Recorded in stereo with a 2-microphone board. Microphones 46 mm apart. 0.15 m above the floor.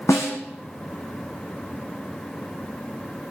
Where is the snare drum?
75° left (ahead or behind), 2 m.